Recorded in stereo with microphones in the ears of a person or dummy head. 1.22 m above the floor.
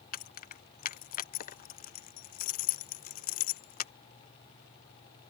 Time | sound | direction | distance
0.1 | keys jangling | 45° left (ahead or behind) | ?